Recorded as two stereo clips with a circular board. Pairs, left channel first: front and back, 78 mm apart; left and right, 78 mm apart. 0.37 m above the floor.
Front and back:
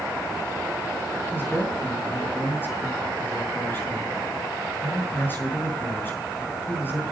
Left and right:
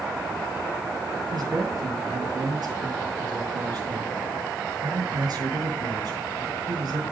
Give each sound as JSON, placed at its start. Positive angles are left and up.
{"t": 1.3, "sound": "a man speaking", "azimuth_deg": -65, "distance_m": 6.0}